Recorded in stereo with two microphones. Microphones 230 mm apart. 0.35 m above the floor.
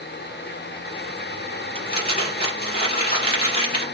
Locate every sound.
1.8 s crumpling: 40° left (ahead or behind), 1.7 m